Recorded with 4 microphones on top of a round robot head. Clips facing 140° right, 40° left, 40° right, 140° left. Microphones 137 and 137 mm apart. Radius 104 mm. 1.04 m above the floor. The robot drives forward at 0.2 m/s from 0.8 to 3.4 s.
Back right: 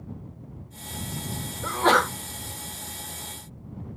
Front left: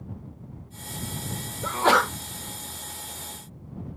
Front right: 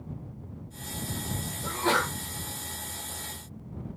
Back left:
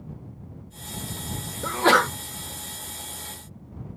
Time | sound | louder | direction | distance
1.6 | a sneeze | even, back left 7 dB | 120° left | 0.6 m